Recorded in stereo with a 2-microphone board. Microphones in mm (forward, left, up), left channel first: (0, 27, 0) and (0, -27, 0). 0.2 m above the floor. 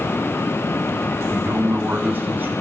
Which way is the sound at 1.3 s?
40° right (ahead or behind).